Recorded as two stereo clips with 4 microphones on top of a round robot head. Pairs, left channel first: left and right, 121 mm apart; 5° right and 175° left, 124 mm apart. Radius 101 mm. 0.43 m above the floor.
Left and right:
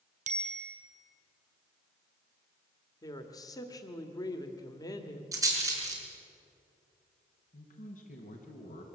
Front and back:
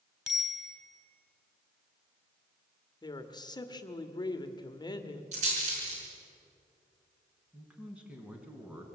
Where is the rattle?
155° right, 5 m.